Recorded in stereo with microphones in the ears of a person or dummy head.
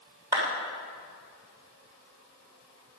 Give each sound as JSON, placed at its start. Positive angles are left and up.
{"t": 0.3, "sound": "a clap", "side_deg": -20, "distance_m": 3.5}